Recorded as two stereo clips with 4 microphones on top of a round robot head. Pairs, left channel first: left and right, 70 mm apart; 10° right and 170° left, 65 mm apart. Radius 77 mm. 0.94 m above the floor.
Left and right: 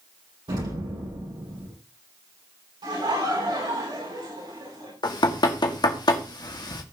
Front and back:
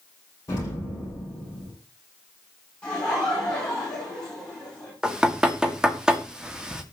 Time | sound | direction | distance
0.5 | an explosion | 60° right | 5.5 m
2.8 | laughter | 85° right | 9.5 m
5.0 | knocking | 95° left | 2 m